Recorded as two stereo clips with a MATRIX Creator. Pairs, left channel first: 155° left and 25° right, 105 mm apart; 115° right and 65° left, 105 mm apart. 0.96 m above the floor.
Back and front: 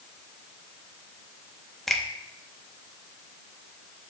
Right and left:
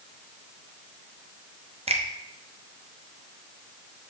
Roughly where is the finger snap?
Left.